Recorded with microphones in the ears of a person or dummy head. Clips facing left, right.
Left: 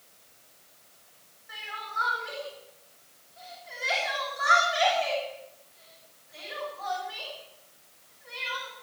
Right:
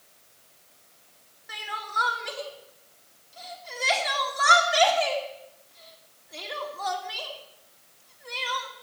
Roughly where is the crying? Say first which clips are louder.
Right 5 dB; right.